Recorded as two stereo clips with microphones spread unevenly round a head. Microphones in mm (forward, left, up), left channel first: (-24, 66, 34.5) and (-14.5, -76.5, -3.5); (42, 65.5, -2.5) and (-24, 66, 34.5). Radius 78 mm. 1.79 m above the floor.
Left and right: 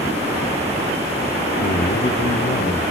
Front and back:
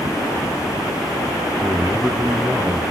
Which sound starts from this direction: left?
A man speaking, at 1.6 s.